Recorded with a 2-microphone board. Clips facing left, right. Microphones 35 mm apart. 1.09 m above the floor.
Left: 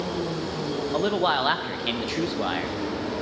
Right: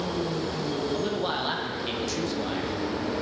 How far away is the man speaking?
About 0.5 m.